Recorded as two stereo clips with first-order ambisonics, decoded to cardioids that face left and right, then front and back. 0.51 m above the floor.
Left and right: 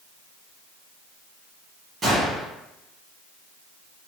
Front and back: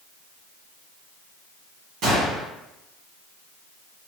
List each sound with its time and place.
2.0 s a gunshot: 150° right, 1.5 m